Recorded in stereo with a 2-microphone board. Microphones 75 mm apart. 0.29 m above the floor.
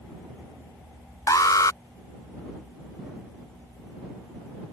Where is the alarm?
50° left (ahead or behind).